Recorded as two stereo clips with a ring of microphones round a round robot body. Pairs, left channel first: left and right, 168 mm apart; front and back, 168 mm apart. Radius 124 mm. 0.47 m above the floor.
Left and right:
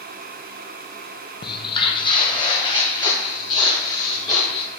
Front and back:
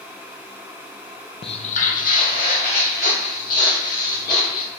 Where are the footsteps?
40° left, 0.6 m; by 4.7 s 25° left, 3.5 m.